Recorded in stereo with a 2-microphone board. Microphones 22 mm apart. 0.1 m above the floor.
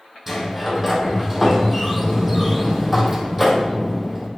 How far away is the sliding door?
About 2 m.